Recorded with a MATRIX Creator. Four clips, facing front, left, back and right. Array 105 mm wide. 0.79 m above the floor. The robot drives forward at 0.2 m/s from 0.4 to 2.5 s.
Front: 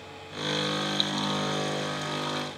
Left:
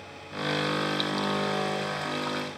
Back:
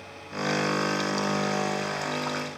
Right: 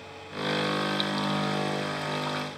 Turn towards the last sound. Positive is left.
No sound to turn to.